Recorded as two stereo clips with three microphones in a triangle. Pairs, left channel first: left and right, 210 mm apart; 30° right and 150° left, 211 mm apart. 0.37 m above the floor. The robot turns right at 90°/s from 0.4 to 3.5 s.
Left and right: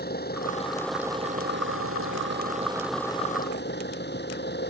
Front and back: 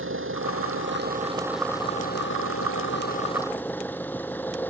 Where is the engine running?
135° left; by 4.7 s 50° left.